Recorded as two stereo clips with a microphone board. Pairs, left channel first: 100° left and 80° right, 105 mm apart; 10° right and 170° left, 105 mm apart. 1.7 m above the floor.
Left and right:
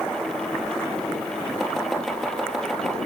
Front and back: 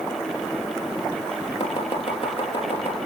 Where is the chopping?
10° left, 3.5 m.